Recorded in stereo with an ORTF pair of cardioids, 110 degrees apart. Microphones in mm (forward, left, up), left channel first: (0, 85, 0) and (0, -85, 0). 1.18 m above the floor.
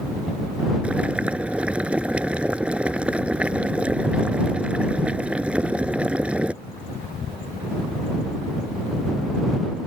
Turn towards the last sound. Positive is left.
turn(degrees=-5)